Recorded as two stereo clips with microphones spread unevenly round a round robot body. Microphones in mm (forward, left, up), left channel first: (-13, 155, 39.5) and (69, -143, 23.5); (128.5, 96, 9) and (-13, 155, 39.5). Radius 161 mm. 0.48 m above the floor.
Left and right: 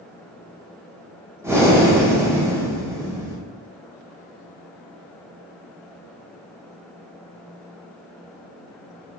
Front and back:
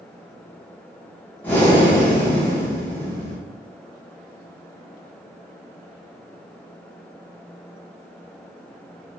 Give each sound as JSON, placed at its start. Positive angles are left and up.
{"t": 1.4, "sound": "breathing", "azimuth_deg": -15, "distance_m": 0.7}